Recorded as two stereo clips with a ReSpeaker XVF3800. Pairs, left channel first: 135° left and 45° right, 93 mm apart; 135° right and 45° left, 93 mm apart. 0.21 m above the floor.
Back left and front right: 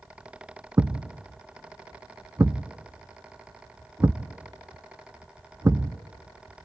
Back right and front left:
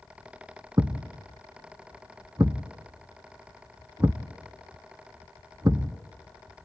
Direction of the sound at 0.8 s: 10° left.